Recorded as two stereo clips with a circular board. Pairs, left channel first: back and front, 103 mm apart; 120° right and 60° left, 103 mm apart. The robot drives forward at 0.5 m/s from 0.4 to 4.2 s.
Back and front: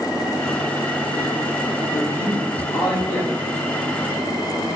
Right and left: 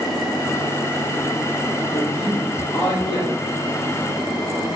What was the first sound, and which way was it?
A man speaking, 170° right.